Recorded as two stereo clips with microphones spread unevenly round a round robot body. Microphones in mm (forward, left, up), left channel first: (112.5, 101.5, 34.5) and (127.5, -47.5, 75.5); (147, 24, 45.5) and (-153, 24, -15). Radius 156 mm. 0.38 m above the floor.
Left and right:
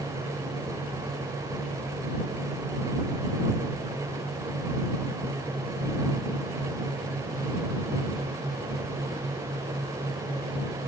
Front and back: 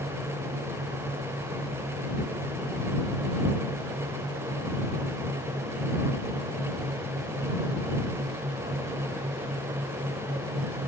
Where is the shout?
I don't hear a shout.